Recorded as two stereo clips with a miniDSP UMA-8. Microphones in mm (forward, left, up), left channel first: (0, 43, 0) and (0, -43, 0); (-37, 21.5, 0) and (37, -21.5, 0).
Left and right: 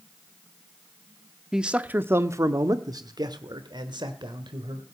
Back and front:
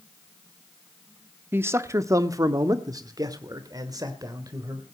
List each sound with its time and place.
1.5 s a man speaking: 10° right, 0.8 m; by 4.8 s 70° right, 2 m